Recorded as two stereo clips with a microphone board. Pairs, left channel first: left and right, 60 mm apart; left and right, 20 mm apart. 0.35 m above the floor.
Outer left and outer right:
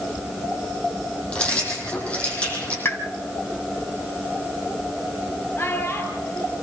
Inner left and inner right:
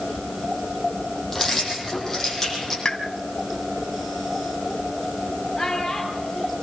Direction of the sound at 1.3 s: 20° left (ahead or behind).